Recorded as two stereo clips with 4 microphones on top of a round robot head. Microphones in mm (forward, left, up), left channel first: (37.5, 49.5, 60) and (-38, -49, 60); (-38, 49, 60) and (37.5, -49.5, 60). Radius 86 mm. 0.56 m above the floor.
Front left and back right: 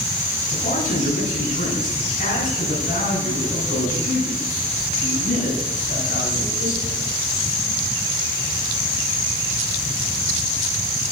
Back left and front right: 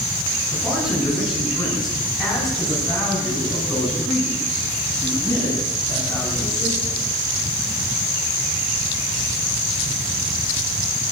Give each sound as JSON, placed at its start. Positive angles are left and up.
{"t": 0.5, "sound": "a man speaking", "azimuth_deg": 30, "distance_m": 7.5}